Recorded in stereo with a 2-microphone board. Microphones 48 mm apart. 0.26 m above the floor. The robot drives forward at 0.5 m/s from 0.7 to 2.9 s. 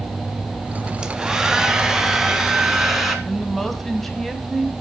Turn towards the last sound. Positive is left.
turn(degrees=5)  # may be behind; listen again after turning